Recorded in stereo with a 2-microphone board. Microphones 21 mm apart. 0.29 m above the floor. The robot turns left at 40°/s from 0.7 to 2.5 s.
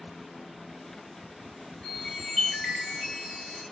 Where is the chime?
45° left (ahead or behind), 2.0 m; by 3.6 s 35° left (ahead or behind), 2.0 m.